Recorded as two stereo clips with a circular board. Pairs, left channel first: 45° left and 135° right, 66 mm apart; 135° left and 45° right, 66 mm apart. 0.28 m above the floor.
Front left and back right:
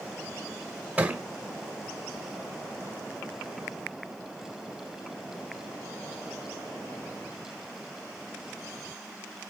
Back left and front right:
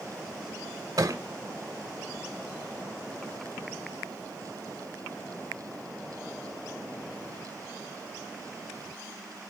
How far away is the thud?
About 1.5 m.